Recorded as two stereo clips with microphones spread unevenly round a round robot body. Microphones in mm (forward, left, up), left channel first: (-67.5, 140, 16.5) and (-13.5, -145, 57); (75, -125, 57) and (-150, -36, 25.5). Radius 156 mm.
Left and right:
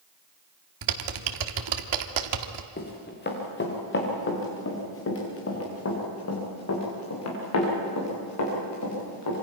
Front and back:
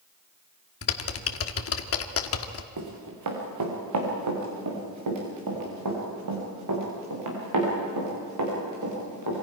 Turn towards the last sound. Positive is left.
turn(degrees=130)